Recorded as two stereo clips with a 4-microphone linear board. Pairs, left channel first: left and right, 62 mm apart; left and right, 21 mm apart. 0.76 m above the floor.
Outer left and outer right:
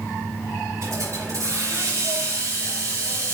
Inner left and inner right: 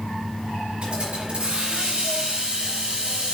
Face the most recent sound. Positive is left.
turn(degrees=-55)  # may be behind; listen again after turning